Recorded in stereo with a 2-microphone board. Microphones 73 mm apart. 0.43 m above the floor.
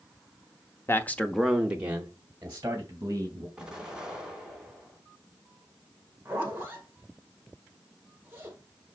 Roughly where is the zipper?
Right.